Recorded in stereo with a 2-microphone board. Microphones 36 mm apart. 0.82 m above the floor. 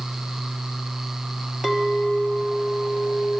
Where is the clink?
15° right (ahead or behind), 1.2 m.